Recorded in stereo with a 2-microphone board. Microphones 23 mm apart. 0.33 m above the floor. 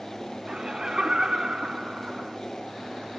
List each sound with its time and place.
0.5 s laughter: 30° right (ahead or behind)